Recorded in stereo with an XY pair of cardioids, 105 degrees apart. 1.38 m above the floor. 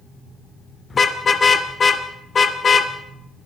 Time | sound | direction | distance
0.9 | a car horn | 35° left | 2.5 m